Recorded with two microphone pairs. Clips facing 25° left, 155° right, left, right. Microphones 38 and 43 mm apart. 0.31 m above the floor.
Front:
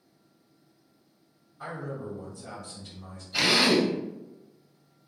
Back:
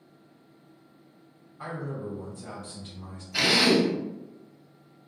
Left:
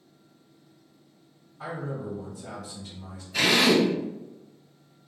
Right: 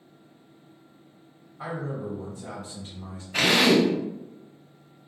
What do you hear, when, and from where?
1.6 s a man speaking: 115° right, 1.8 m
3.3 s a drill: 65° right, 0.8 m